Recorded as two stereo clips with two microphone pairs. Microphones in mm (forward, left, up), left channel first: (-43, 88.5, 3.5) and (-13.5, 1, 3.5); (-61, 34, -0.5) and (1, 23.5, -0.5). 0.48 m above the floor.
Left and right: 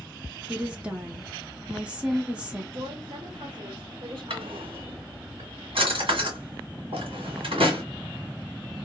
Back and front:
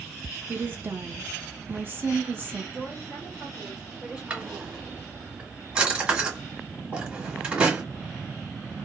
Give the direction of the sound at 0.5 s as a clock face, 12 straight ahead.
12 o'clock.